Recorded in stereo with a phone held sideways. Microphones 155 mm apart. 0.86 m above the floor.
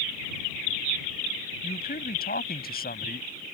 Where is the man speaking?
80° left.